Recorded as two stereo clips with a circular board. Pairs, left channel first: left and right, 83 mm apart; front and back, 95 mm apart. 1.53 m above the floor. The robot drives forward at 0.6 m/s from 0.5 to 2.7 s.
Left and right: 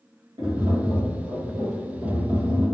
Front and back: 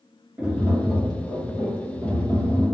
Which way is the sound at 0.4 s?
105° right.